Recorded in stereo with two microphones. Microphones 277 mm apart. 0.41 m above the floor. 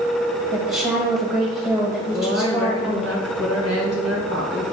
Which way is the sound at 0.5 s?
10° right (ahead or behind).